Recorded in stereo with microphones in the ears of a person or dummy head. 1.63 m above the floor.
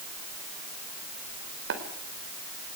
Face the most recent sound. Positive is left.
turn(degrees=-70)  # may be behind; listen again after turning